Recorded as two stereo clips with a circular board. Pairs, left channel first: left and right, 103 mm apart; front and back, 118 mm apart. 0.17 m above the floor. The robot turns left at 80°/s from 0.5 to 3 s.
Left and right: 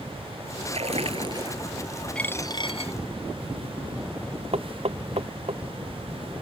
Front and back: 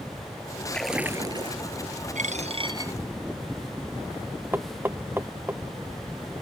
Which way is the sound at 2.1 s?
170° left.